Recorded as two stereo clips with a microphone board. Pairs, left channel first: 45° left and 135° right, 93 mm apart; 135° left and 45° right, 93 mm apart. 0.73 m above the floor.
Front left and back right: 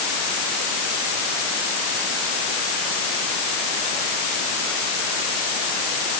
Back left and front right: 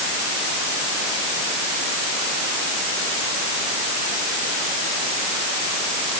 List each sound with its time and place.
Only background noise.